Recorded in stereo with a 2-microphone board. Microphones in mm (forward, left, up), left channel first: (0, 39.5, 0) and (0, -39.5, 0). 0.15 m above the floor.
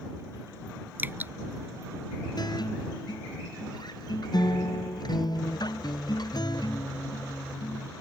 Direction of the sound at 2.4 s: 60° left (ahead or behind).